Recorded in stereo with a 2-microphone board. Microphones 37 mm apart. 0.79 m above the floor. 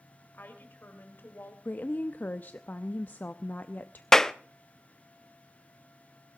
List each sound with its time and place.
0.3 s a woman speaking: 65° left (ahead or behind), 3.5 m; by 1.6 s 80° left, 3.5 m
1.6 s a woman speaking: 55° left (ahead or behind), 0.7 m
4.1 s a clap: 15° left (ahead or behind), 0.6 m